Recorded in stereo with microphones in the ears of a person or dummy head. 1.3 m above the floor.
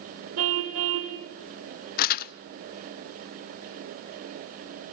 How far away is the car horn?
About 2.5 m.